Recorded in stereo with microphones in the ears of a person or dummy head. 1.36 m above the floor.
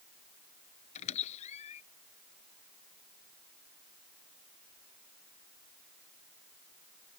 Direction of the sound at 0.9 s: 40° left (ahead or behind).